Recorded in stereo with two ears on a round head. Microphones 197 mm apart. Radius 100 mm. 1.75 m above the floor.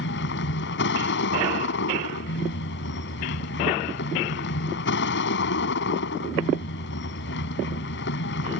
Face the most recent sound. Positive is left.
turn(degrees=55)  # may be behind; listen again after turning